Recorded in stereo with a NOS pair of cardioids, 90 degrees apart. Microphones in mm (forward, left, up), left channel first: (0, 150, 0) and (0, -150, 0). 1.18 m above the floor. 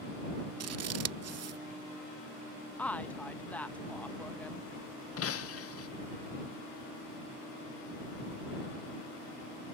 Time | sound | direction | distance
0.6 | scissors | 55° right | ?
2.8 | a woman speaking | 5° left | ?
5.2 | breaking glass | 50° left | ?